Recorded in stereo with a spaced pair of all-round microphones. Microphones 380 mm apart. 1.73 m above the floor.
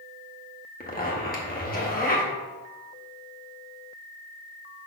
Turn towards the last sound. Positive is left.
turn(degrees=25)  # may be behind; listen again after turning